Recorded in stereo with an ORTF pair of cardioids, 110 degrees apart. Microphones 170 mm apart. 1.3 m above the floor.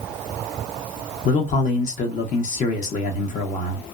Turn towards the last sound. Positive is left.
turn(degrees=50)